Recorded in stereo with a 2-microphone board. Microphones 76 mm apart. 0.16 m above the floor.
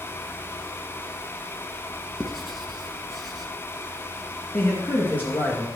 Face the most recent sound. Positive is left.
turn(degrees=25)  # may be behind; listen again after turning